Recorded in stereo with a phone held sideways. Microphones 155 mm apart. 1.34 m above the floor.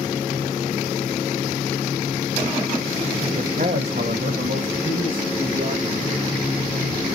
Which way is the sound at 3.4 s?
50° right (ahead or behind).